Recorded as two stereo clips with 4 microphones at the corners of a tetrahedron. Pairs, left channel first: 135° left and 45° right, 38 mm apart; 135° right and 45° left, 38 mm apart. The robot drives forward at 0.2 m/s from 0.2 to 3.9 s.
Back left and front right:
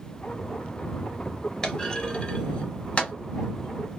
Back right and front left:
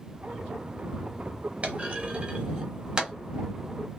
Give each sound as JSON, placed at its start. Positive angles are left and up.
{"t": 1.6, "sound": "a clunk", "azimuth_deg": 75, "distance_m": 0.8}